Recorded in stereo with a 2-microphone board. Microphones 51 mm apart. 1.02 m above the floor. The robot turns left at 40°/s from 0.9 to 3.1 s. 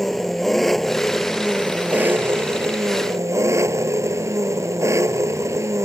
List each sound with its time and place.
0.0 s an engine running: 5° left; by 5.9 s 85° right